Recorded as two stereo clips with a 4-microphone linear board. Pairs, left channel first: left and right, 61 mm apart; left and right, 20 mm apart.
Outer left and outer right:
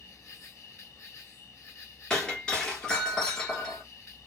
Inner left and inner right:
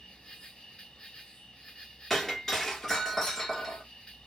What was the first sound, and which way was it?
An insect, 50° left (ahead or behind).